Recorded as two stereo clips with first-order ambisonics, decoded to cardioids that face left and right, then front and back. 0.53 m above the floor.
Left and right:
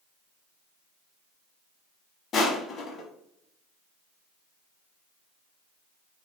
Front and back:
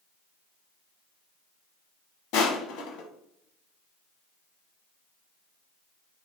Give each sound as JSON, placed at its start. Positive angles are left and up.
{"t": 2.3, "sound": "crushing", "azimuth_deg": 30, "distance_m": 1.1}